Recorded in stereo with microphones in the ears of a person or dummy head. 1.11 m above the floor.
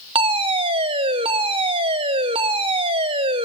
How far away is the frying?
No frying in this recording.